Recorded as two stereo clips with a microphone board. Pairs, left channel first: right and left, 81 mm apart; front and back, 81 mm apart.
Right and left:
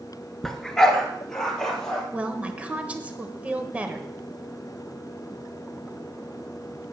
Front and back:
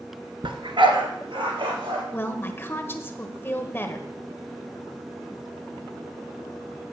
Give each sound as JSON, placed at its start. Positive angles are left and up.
{"t": 0.4, "sound": "a dog barking", "azimuth_deg": -175, "distance_m": 1.1}
{"t": 2.1, "sound": "a woman speaking", "azimuth_deg": 35, "distance_m": 1.1}